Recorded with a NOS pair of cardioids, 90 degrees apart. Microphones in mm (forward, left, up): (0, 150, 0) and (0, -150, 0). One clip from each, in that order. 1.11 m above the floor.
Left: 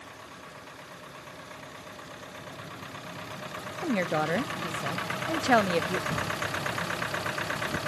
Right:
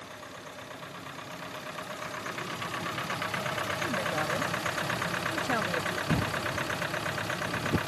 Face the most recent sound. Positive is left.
turn(degrees=-55)